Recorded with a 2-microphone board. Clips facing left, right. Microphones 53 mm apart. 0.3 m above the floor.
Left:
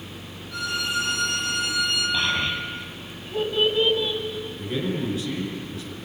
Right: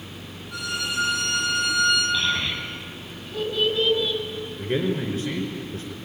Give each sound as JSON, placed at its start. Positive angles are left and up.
{"t": 0.5, "sound": "a violin", "side_deg": -10, "distance_m": 9.0}
{"t": 2.1, "sound": "a child speaking", "side_deg": 20, "distance_m": 7.0}
{"t": 4.6, "sound": "a man speaking", "side_deg": -45, "distance_m": 4.5}